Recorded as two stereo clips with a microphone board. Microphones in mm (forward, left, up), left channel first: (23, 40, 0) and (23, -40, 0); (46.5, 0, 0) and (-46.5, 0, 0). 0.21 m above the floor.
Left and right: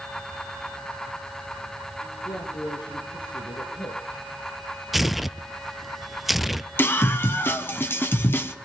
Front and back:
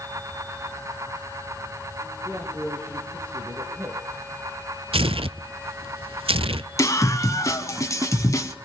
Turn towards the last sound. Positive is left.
turn(degrees=40)